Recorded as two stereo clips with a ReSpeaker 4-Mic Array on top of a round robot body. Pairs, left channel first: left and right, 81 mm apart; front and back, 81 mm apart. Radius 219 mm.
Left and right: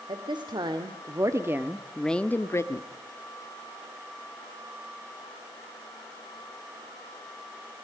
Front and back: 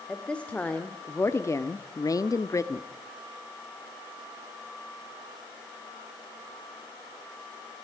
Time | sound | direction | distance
0.1 | a woman speaking | 80° right | 2.5 m